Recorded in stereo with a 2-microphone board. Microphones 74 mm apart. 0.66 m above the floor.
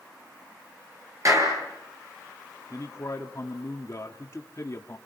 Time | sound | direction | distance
1.2 | a clap | 45° right (ahead or behind) | 9.5 m
2.7 | a man speaking | 45° left (ahead or behind) | 1.5 m